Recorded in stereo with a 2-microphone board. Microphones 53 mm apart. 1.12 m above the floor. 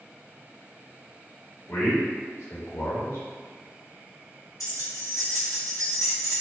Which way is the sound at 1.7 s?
60° left (ahead or behind).